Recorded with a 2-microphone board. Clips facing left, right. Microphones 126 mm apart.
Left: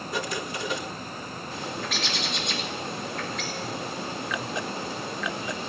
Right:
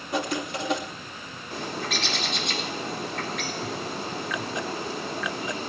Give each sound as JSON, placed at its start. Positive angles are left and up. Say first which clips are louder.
{"t": 0.1, "sound": "writing", "louder": "right 4 dB", "side_deg": -65, "distance_m": 2.5}
{"t": 1.5, "sound": "a bird", "louder": "right 3 dB", "side_deg": -75, "distance_m": 4.5}